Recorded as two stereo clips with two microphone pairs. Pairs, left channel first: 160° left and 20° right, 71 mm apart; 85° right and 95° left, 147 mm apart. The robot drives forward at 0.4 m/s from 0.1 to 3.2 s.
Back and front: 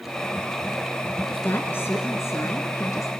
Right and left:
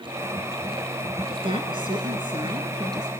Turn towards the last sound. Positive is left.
turn(degrees=145)